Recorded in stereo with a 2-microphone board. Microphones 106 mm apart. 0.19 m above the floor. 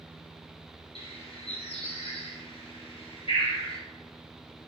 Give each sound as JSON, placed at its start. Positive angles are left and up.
{"t": 0.9, "sound": "a bird", "side_deg": 65, "distance_m": 1.9}